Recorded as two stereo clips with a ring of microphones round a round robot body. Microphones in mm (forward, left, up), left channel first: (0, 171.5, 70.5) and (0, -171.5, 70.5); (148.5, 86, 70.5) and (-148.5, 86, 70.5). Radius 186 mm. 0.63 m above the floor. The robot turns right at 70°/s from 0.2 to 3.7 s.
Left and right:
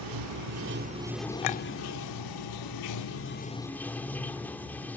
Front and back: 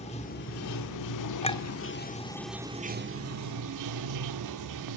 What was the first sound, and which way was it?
Running water, 70° right.